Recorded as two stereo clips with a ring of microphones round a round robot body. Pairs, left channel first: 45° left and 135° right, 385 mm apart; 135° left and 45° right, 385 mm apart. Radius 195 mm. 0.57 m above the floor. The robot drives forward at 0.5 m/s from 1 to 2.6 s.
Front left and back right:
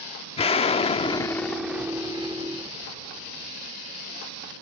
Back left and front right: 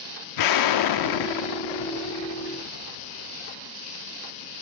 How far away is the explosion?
About 0.9 m.